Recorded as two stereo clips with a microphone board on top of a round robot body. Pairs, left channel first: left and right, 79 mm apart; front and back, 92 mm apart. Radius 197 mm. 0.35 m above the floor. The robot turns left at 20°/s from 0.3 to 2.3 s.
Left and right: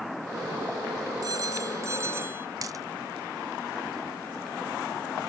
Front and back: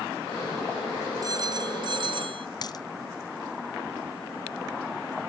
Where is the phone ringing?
130° right; by 2.5 s 150° right.